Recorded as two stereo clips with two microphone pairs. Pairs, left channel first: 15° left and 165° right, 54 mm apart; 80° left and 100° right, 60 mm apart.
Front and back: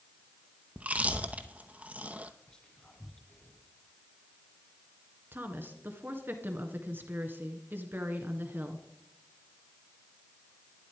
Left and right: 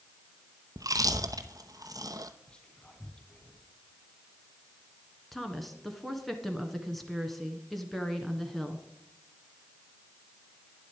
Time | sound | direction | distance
0.8 | chewing | 100° right | 0.8 m
2.5 | whispering | 45° left | 1.3 m
5.3 | a woman speaking | 170° left | 1.8 m